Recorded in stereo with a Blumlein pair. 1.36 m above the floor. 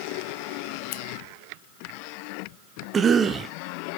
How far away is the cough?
About 0.6 m.